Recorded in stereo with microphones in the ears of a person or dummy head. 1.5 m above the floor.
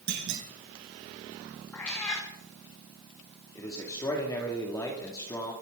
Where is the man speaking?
20° left (ahead or behind), 2.5 m.